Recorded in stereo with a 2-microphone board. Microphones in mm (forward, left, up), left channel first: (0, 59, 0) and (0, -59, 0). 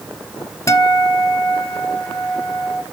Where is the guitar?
25° left (ahead or behind), 0.9 m.